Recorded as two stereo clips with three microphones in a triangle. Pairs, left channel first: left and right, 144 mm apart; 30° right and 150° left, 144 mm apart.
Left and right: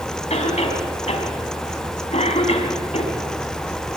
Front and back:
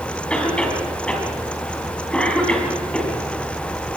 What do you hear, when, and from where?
0.3 s a cough: 55° left, 3.5 m